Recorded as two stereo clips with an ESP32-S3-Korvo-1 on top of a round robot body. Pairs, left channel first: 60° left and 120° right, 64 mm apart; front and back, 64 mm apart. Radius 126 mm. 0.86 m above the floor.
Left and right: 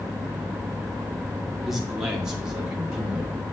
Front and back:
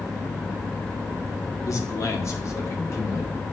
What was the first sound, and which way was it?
A man speaking, 35° right.